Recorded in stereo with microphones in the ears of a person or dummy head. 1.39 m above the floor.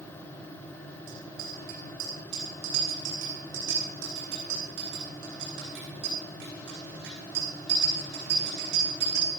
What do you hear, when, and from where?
1.1 s a bicycle bell: 75° right (ahead or behind), 9 m; by 9.3 s 60° right (ahead or behind), 14.5 m